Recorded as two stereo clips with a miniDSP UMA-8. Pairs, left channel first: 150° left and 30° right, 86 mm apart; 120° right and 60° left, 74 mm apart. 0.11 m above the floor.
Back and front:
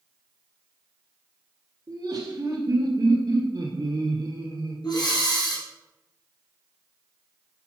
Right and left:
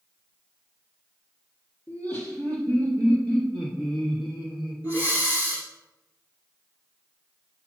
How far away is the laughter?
About 3 m.